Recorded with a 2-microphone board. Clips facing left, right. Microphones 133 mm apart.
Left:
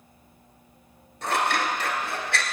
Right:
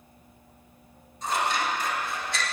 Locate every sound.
1.2 s scissors: 75° left (ahead or behind), 1.2 m